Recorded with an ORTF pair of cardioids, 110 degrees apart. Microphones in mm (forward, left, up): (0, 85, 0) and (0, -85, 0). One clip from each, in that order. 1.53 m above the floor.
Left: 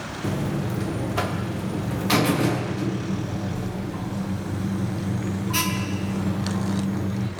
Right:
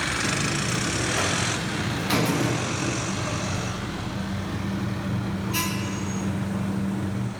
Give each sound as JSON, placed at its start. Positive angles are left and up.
{"t": 0.2, "sound": "a buzzer", "azimuth_deg": 15, "distance_m": 0.9}